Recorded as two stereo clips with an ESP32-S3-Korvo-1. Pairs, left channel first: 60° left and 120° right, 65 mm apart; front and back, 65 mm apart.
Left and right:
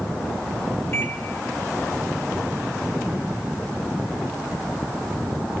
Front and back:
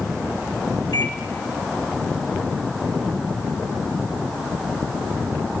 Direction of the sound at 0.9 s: 10° left.